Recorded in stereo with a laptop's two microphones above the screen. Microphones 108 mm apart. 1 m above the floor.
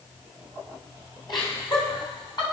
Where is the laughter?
40° left (ahead or behind), 5.5 m; by 2.4 s 45° left (ahead or behind), 6.5 m.